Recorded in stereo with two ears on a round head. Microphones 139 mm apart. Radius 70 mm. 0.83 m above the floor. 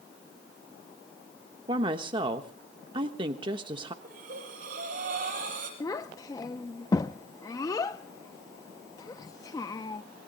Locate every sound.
1.7 s a woman speaking: 30° right (ahead or behind), 1.1 m
4.0 s breathing: 55° right (ahead or behind), 8 m
5.8 s a child speaking: 20° left (ahead or behind), 0.6 m